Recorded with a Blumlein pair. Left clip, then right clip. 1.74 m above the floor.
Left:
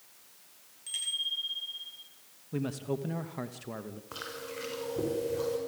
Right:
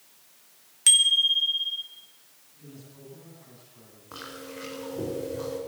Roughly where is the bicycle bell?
Ahead right.